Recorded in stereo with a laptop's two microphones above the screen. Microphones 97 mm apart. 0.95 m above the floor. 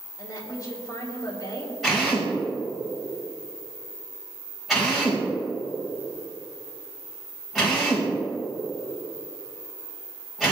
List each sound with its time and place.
0.2 s a woman speaking: 35° left (ahead or behind), 3 m
1.8 s a drill: 5° right (ahead or behind), 4 m